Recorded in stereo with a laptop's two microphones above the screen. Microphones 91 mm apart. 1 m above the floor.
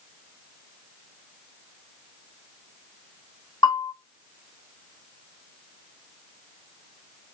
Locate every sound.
3.6 s a bell: 65° left (ahead or behind), 2.5 m